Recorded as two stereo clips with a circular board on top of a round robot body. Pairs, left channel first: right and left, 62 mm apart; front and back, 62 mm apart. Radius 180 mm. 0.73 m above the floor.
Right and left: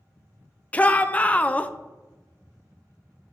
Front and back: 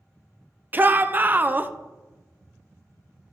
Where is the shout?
145° right, 0.6 m.